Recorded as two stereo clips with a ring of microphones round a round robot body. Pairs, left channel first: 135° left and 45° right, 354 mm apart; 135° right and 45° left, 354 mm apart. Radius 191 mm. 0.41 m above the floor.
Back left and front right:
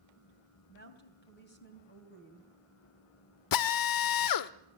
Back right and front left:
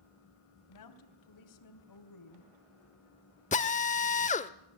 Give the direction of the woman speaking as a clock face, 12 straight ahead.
5 o'clock.